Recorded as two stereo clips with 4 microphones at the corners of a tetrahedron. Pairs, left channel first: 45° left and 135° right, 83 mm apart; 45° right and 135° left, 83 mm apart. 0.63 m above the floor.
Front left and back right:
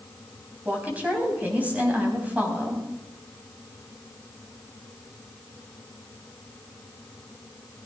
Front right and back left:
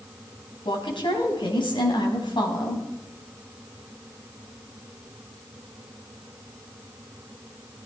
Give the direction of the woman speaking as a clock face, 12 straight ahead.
2 o'clock.